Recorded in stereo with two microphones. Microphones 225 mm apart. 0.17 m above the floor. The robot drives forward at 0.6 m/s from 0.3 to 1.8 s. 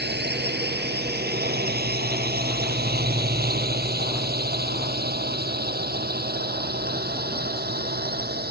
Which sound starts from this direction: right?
A drone, at 0.0 s.